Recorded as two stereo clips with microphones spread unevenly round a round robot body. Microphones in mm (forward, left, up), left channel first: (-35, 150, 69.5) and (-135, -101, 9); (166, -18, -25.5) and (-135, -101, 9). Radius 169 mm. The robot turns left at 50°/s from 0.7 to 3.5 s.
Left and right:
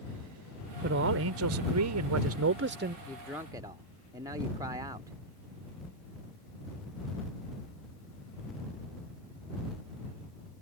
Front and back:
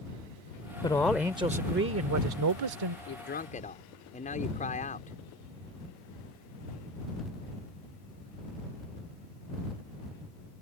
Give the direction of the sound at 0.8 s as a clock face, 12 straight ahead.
2 o'clock.